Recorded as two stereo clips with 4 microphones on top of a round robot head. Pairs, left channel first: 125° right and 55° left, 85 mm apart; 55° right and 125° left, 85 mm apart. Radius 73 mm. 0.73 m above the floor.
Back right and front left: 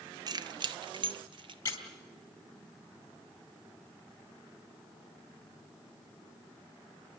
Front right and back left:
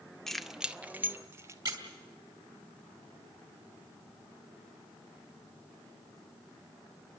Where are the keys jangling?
30° left, 0.8 m; by 1.6 s 70° left, 1.3 m.